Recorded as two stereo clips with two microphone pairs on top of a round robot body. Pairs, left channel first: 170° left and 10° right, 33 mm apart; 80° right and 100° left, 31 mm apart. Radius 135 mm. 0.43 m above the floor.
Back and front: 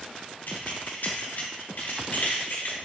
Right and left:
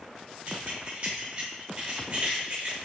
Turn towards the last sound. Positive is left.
turn(degrees=155)